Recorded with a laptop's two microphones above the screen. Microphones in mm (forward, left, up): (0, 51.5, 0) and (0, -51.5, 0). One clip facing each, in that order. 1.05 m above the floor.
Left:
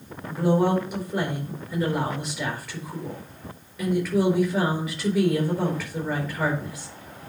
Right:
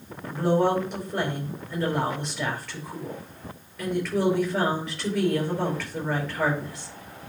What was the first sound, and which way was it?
A woman speaking, centre (ahead or behind).